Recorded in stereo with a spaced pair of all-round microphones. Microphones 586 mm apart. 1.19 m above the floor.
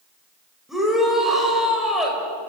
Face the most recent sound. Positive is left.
turn(degrees=0)  # may be behind; listen again after turning